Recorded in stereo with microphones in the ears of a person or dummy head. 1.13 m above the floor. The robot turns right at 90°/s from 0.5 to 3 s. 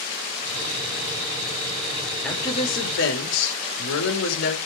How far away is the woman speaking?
About 4.5 m.